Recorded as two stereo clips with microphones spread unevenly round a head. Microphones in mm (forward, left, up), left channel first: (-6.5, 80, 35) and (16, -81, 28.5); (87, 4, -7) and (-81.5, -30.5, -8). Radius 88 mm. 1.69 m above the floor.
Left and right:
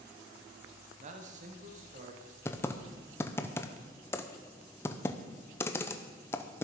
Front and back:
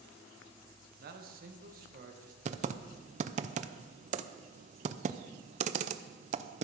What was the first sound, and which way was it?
A man speaking, 130° right.